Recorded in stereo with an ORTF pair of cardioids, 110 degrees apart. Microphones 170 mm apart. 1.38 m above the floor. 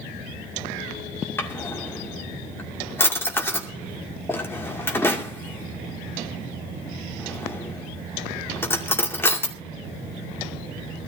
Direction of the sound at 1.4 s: 15° left.